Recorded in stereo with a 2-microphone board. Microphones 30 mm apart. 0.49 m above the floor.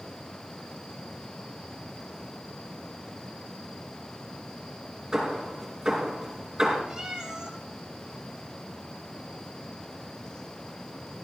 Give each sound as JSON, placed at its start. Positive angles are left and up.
{"t": 5.1, "sound": "hammering", "side_deg": -20, "distance_m": 5.0}
{"t": 6.9, "sound": "a cat meowing", "side_deg": -25, "distance_m": 3.0}